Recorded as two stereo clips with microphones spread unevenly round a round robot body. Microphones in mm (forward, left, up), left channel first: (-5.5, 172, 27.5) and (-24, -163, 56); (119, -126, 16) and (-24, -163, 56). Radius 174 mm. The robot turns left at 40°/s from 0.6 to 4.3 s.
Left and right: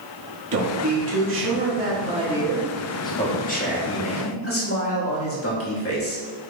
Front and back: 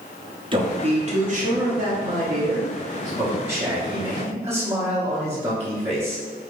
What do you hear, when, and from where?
0.5 s a man speaking: 105° right, 1.3 m; by 6.2 s 105° left, 1.3 m